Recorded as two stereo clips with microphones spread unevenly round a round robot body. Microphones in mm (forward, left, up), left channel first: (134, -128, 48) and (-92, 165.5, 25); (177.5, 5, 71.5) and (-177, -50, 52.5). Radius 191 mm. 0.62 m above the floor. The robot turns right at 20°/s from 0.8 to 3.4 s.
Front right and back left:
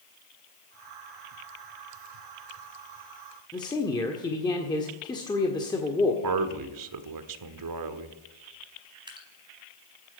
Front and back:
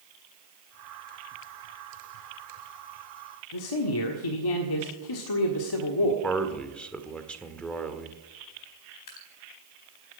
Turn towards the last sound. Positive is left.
turn(degrees=50)